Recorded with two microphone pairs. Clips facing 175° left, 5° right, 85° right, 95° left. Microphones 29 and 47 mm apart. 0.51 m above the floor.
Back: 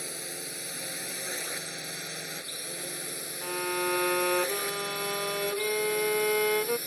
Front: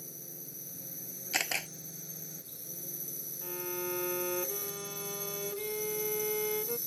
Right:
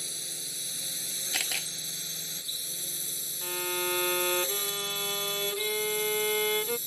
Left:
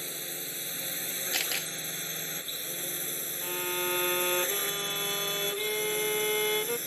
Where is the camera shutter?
Straight ahead.